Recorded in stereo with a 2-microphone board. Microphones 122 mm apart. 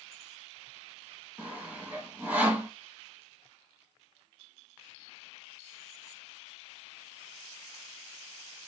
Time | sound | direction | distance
1.4 | sawing | 10° right (ahead or behind) | 1.1 m